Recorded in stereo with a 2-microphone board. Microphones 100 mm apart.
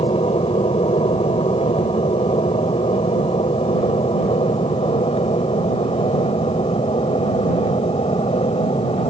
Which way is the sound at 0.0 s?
65° left (ahead or behind).